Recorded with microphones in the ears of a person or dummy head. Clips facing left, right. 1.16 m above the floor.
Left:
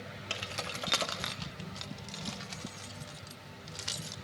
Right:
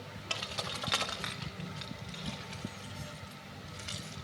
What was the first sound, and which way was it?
Keys jangling, 15° left (ahead or behind).